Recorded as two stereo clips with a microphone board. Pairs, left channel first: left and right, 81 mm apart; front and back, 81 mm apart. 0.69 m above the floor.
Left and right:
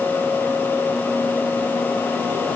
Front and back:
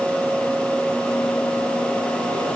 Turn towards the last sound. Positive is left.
No sound to turn to.